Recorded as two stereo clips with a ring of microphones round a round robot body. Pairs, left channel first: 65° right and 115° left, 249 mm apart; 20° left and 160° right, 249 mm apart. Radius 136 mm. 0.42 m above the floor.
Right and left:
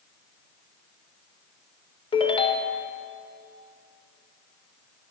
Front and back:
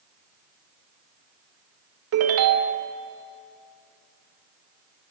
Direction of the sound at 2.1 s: 135° right.